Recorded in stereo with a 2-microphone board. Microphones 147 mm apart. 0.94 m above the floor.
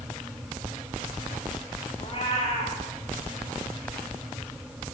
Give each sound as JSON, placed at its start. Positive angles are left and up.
{"t": 2.0, "sound": "a cat meowing", "side_deg": 45, "distance_m": 4.0}